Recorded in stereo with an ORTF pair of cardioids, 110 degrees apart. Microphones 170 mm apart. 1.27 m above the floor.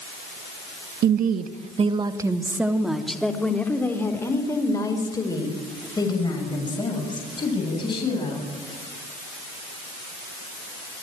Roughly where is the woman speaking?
Ahead right.